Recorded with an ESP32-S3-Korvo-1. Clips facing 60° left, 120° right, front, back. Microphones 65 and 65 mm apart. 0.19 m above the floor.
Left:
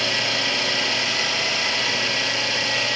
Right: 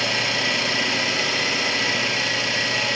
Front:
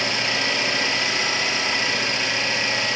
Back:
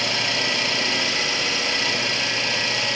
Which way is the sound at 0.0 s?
45° right.